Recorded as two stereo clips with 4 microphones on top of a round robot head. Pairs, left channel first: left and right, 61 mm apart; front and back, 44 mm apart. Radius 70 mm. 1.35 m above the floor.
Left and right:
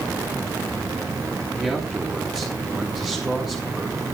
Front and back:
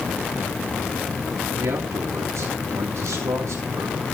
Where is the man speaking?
175° right, 3 m.